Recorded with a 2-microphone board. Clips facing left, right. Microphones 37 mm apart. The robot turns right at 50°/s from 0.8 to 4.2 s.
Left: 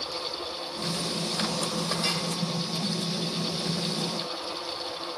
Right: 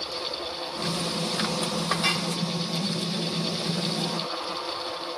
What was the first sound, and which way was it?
A clink, 35° right (ahead or behind).